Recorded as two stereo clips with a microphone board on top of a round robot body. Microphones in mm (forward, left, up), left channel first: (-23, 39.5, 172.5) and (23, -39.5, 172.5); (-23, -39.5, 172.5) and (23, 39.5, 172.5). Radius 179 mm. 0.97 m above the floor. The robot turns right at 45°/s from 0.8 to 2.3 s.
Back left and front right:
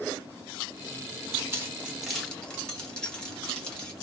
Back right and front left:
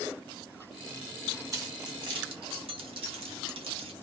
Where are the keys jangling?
5° left, 1.0 m; by 3.9 s 40° left, 1.0 m.